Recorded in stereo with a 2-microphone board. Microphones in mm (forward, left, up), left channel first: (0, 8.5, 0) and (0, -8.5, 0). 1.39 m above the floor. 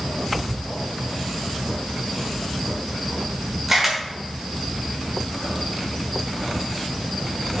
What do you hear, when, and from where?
3.7 s a camera shutter: 15° right (ahead or behind), 1.5 m